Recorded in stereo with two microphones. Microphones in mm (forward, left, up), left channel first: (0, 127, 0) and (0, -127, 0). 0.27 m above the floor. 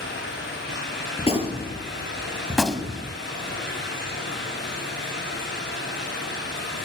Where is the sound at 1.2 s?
20° left (ahead or behind), 5 m.